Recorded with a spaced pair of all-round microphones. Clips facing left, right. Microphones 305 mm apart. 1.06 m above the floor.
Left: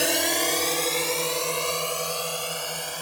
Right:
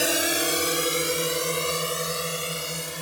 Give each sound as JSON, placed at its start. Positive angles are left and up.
{"t": 0.0, "sound": "a drone", "side_deg": 0}